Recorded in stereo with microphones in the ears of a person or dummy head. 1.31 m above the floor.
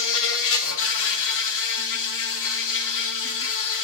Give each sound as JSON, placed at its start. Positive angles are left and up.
{"t": 0.0, "sound": "an insect", "side_deg": 70, "distance_m": 1.6}